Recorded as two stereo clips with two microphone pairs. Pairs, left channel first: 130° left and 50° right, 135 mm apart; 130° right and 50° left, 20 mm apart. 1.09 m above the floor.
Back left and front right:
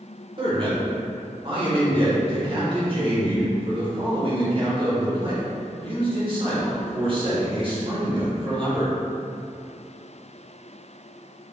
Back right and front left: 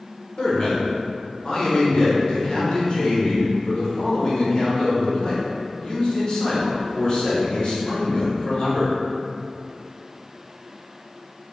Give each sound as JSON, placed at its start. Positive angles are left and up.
{"t": 0.4, "sound": "a man speaking", "azimuth_deg": -95, "distance_m": 1.3}